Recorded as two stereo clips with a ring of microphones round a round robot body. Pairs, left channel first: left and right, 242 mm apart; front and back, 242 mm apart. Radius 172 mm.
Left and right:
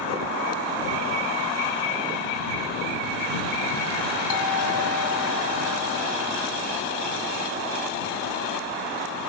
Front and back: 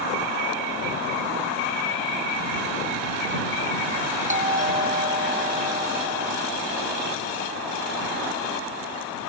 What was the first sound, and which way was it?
A doorbell, 120° left.